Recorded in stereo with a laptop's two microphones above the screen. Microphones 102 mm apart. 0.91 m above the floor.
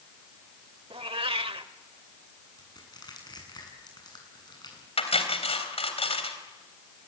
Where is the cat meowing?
70° right (ahead or behind), 1.1 m.